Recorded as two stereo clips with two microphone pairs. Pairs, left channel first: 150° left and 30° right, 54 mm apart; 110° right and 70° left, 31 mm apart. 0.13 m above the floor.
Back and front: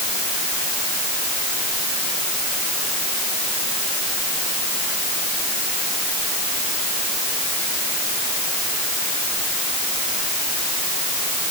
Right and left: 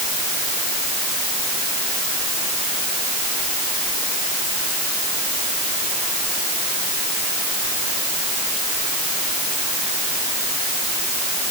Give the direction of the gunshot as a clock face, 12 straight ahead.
No gunshot in this recording.